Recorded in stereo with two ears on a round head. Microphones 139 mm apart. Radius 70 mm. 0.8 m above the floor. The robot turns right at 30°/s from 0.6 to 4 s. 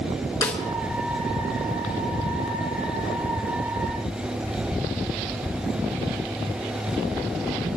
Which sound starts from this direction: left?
A snare drum, at 0.4 s.